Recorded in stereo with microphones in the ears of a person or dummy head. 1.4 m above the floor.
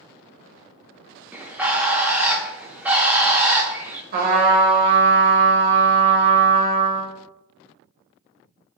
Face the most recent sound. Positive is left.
turn(degrees=-50)  # may be behind; listen again after turning